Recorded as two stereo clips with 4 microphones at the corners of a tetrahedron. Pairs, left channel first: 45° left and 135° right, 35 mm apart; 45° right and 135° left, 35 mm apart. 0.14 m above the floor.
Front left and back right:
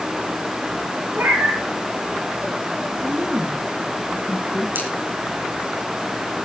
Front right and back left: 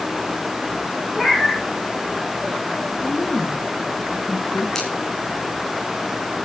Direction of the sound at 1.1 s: 135° right.